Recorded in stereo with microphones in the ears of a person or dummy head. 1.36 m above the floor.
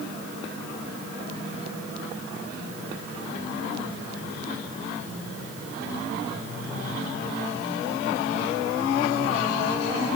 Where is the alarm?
I don't hear an alarm.